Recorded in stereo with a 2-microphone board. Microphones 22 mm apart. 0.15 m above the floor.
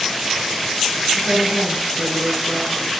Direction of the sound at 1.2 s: 65° right (ahead or behind).